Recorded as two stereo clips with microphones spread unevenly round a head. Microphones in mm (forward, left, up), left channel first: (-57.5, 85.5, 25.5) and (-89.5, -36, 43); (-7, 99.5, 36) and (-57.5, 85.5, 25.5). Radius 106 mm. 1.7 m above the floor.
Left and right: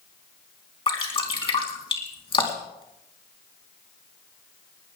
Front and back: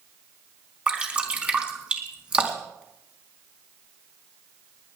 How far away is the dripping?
About 4 m.